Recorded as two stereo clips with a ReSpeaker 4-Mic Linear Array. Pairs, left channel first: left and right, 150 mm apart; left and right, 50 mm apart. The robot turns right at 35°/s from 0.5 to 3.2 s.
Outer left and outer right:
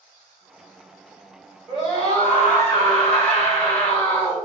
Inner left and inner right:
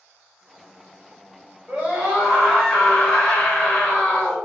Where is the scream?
40° right, 1.7 m; by 4.4 s 10° left, 1.7 m.